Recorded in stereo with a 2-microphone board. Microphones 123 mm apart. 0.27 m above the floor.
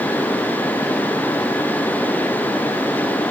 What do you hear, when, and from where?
Only background noise.